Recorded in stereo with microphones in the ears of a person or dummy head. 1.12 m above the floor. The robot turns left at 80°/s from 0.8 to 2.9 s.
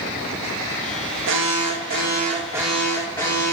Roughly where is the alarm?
Ahead right.